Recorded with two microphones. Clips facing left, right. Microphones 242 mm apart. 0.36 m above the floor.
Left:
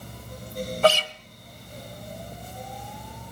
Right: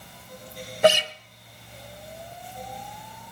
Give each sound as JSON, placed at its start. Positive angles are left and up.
{"t": 0.8, "sound": "a guitar", "side_deg": -20, "distance_m": 0.8}